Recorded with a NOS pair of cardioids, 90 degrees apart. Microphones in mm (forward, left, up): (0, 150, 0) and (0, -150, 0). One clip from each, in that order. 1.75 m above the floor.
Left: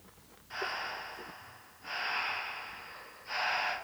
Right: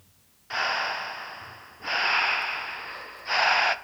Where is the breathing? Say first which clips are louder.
Right 10 dB; 60° right, 0.7 m.